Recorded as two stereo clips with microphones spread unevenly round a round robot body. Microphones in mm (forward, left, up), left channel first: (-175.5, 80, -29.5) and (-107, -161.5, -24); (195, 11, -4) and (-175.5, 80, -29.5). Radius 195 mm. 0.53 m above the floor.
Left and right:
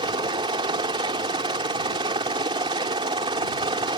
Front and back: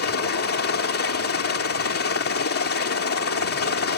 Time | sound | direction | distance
0.0 | a helicopter | 20° right | ?